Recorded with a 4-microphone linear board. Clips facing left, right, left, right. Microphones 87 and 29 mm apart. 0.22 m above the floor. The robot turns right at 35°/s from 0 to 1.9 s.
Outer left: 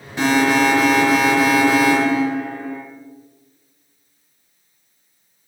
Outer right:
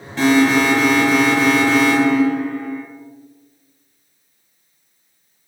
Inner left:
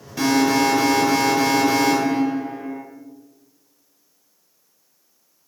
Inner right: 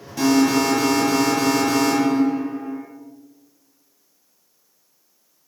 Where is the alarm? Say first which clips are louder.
Outer right 2 dB, even; 15° left (ahead or behind), 1.4 m; by 2.8 s 20° left (ahead or behind), 1.4 m.